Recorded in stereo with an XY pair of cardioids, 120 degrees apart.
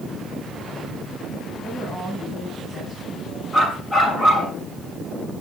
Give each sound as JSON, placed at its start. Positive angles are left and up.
{"t": 1.6, "sound": "a woman speaking", "azimuth_deg": 25, "distance_m": 8.0}
{"t": 3.5, "sound": "a dog barking", "azimuth_deg": 25, "distance_m": 7.0}